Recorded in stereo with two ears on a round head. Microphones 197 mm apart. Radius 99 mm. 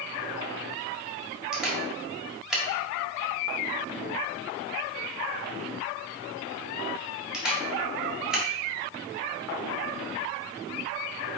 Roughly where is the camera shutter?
Centre.